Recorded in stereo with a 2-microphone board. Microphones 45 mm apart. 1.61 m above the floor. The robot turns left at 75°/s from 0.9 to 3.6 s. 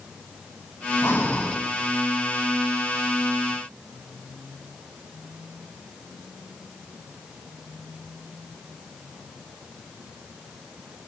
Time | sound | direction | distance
1.0 | breathing | 60° left | 1.0 m